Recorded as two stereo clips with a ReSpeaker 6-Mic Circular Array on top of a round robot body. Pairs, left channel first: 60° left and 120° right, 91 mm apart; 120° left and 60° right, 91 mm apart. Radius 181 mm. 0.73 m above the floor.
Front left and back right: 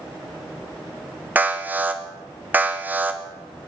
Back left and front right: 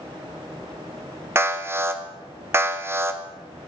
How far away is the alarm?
About 1.1 m.